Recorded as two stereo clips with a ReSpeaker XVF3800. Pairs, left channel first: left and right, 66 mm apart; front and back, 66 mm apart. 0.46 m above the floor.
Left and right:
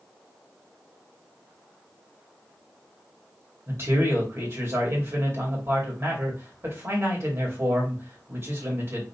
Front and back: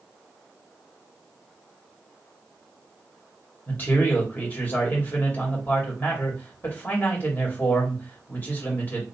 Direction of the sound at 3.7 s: 55° right.